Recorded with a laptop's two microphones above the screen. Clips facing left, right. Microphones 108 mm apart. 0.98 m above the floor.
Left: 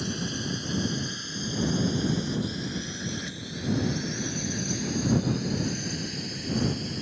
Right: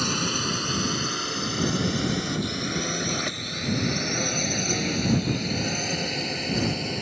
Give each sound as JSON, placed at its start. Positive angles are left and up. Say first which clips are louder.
{"t": 0.0, "sound": "a drone", "louder": "right 4 dB", "side_deg": -70}